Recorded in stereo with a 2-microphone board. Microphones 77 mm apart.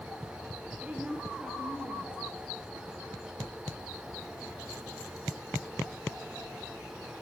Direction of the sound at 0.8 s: 15° right (ahead or behind).